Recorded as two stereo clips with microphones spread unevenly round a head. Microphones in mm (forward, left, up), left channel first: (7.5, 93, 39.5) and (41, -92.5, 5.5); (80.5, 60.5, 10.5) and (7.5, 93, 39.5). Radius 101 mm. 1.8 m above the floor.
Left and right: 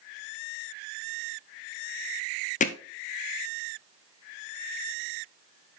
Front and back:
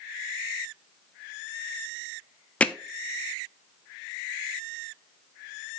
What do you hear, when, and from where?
2.6 s hammering: 60° left, 0.8 m